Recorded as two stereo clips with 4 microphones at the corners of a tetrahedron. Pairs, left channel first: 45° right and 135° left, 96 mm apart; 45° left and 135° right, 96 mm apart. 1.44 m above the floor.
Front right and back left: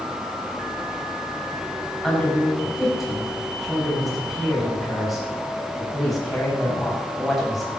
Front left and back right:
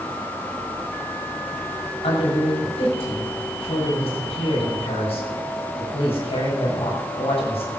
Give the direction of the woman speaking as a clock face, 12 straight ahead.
10 o'clock.